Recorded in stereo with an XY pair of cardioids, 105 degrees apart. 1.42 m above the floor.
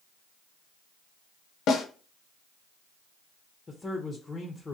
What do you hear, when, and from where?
1.7 s a snare drum: 65° left, 0.6 m
3.7 s a man speaking: 30° left, 0.6 m